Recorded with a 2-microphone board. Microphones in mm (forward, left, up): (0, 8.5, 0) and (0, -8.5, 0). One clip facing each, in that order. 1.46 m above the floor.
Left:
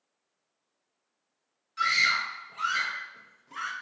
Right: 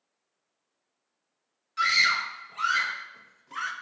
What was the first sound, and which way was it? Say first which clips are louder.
A scream: right 2 dB; 15° right (ahead or behind).